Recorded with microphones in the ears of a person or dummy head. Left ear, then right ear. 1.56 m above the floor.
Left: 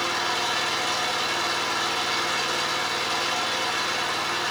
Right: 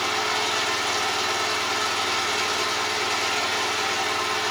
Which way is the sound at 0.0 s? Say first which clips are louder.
Right 1 dB; 5° right (ahead or behind).